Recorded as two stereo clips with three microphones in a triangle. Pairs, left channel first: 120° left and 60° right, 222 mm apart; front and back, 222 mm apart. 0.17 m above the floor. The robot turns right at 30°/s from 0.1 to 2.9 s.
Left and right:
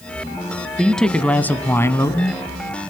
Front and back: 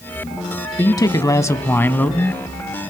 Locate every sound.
0.8 s a man speaking: 30° left, 1.0 m; by 2.4 s 80° left, 1.0 m